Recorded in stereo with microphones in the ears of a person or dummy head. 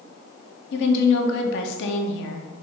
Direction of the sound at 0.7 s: 65° left (ahead or behind).